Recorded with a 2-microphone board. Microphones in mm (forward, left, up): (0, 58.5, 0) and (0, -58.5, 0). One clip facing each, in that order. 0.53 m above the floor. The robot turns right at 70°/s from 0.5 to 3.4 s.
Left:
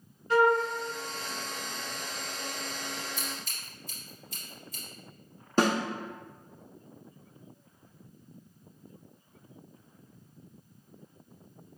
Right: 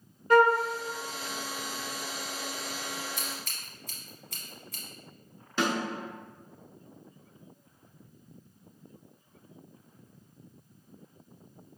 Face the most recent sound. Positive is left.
turn(degrees=40)  # may be behind; listen again after turning